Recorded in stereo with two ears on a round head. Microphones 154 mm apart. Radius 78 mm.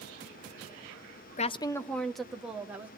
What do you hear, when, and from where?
1.4 s a woman speaking: 45° left (ahead or behind), 0.6 m; by 2.9 s 10° right (ahead or behind), 1.8 m